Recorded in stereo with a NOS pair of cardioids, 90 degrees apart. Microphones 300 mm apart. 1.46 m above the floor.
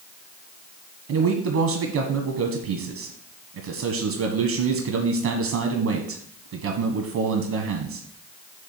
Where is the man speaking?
70° right, 1.3 m.